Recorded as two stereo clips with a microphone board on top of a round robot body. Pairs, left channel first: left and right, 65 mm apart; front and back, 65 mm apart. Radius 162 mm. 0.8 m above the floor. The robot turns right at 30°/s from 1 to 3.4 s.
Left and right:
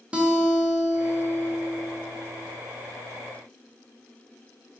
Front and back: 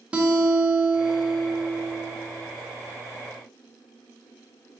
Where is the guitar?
135° right, 0.9 m; by 2.1 s 100° right, 0.9 m.